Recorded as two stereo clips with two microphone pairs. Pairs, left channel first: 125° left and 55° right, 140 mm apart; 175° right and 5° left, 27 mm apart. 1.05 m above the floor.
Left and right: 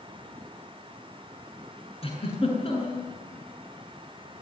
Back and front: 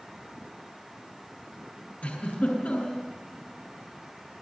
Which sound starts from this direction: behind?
A giggle, at 2.0 s.